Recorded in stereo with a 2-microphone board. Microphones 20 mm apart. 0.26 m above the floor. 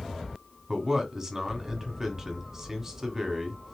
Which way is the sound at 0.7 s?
20° right (ahead or behind).